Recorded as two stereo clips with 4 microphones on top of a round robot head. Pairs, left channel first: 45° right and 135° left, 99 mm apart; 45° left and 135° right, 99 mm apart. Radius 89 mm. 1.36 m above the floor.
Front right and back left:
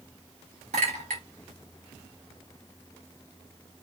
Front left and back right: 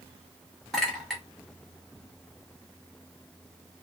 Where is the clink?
135° left, 1.1 m.